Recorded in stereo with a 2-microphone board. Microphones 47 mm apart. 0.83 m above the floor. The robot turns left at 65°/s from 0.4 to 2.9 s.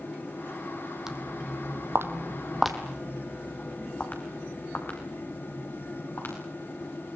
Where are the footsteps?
10° right (ahead or behind), 2 m; by 6.3 s 55° left (ahead or behind), 6 m.